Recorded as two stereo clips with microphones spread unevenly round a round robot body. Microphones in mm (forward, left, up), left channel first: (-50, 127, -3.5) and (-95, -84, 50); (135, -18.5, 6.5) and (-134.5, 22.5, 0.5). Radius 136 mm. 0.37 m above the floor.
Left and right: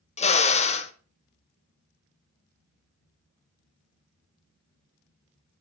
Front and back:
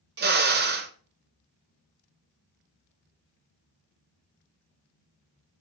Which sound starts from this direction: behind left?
A drill, at 0.2 s.